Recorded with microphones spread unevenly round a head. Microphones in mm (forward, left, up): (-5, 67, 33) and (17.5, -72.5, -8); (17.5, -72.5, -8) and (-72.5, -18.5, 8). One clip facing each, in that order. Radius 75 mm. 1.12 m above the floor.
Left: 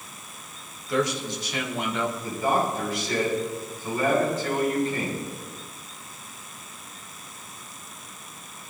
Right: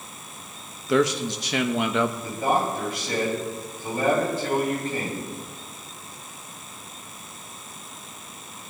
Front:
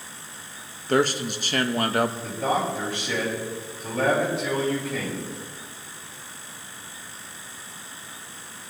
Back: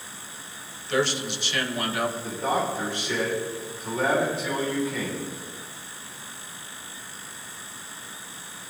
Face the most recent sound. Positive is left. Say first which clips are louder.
# right 1 dB, front 1 dB
turn(degrees=-35)